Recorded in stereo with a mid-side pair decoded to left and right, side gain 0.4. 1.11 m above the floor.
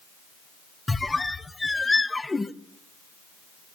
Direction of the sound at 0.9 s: 20° left.